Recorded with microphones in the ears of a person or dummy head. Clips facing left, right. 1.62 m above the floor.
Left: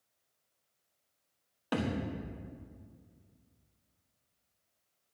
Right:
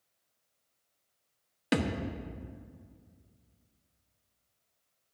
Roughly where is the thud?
Right.